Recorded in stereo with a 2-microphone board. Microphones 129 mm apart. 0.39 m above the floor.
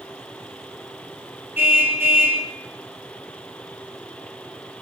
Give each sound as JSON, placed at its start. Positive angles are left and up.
{"t": 1.6, "sound": "a car horn", "side_deg": -15, "distance_m": 3.5}